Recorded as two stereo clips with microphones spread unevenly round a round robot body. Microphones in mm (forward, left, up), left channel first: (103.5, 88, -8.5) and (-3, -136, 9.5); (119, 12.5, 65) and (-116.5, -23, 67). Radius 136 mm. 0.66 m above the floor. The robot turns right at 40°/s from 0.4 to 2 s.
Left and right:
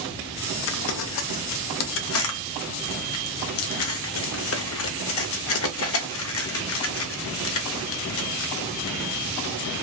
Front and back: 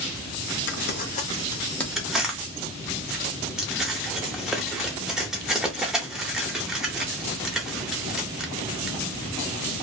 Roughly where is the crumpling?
Ahead left.